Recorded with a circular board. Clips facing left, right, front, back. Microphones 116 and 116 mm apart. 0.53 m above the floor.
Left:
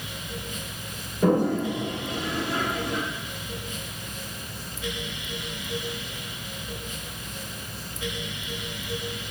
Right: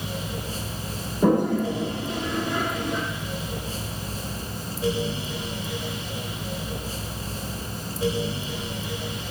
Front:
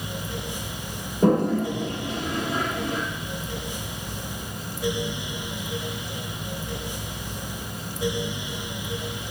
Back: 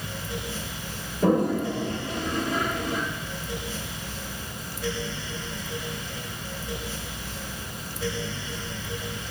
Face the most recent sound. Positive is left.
turn(degrees=-30)